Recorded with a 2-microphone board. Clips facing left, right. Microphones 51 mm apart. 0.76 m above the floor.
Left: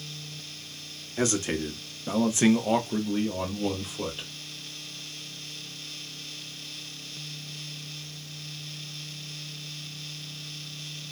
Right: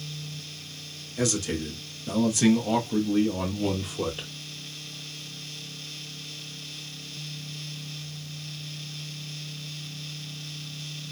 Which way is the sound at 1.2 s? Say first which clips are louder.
Left 1 dB; 35° left (ahead or behind).